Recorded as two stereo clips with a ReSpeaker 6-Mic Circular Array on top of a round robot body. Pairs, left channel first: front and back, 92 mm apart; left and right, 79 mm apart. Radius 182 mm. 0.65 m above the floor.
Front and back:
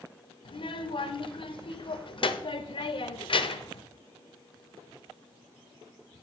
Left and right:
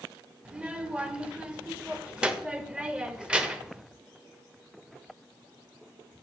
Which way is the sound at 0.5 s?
15° right.